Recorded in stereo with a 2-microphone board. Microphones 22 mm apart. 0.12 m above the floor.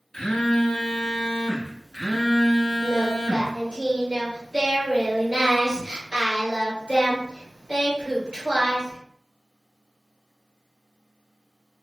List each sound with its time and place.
0.1 s a phone buzzing: 25° left (ahead or behind), 0.6 m
2.8 s singing: 40° right (ahead or behind), 1.5 m